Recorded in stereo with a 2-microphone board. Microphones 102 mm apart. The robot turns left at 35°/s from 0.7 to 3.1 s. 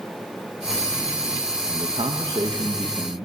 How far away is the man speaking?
About 1.6 m.